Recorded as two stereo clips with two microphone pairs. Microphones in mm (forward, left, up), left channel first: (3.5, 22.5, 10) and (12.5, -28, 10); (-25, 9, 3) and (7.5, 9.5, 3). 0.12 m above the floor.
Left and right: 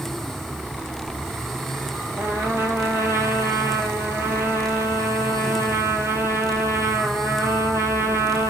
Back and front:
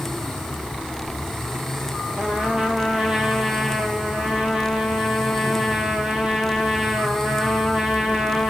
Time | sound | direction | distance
2.2 | a trumpet | 60° right | 1.8 m